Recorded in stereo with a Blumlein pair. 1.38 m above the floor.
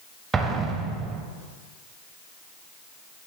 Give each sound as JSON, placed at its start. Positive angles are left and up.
{"t": 0.3, "sound": "an explosion", "azimuth_deg": -20, "distance_m": 0.8}